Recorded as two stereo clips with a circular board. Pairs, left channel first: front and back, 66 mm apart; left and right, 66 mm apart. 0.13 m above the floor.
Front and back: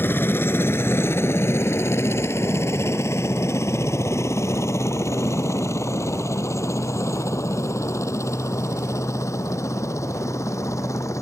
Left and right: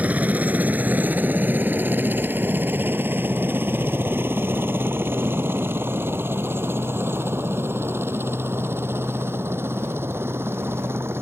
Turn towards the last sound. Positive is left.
turn(degrees=-40)